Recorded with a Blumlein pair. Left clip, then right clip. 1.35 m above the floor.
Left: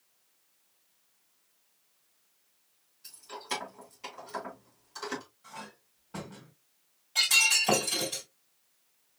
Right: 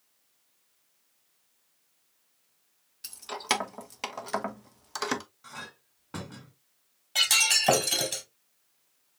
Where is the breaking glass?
30° right, 3 m.